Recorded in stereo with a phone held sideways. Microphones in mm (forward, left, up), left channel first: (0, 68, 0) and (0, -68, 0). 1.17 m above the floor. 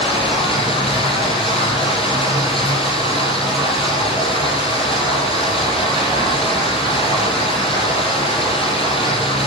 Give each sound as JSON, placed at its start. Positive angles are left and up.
{"t": 0.0, "sound": "running water", "side_deg": 40, "distance_m": 7.0}